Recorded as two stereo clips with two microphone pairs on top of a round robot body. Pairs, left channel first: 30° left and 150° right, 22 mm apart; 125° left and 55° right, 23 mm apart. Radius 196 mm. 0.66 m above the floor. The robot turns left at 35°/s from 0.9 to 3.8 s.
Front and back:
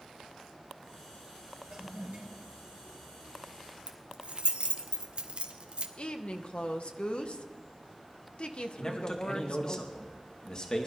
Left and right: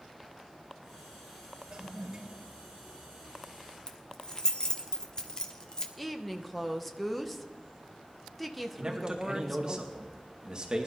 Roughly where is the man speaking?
Ahead.